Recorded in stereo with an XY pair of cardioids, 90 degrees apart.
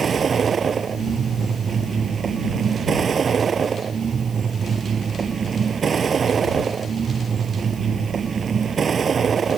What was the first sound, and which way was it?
A vehicle, 45° right.